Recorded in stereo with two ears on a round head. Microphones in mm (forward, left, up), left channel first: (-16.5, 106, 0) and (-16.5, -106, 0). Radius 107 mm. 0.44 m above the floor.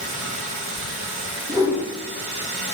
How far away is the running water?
About 5 m.